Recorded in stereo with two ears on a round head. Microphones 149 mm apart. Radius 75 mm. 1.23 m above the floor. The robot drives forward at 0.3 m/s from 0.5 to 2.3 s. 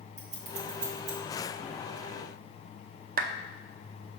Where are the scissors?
40° right (ahead or behind), 2 m; by 1.2 s 45° right (ahead or behind), 1.9 m.